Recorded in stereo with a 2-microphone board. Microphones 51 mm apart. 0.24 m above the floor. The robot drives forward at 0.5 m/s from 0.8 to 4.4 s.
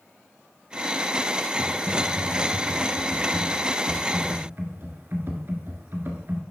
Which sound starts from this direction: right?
Typing on a keyboard, at 1.6 s.